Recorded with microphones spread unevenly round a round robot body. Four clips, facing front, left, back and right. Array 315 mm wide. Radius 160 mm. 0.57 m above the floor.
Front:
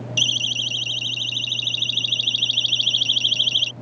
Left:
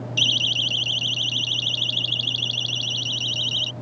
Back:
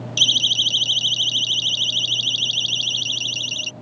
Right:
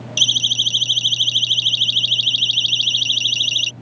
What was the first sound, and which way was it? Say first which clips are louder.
A siren: right 1 dB, back 2 dB; 50° right.